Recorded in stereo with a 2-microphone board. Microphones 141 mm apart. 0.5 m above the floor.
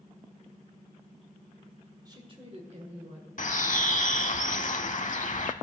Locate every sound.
2.0 s a woman speaking: 30° right (ahead or behind), 1.8 m; by 3.3 s 55° right (ahead or behind), 2 m
3.4 s a bird: 60° left (ahead or behind), 0.6 m